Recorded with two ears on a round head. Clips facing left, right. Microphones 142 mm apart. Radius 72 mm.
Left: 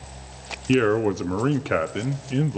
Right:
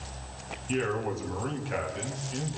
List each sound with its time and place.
0.7 s a man speaking: 70° left (ahead or behind), 0.9 m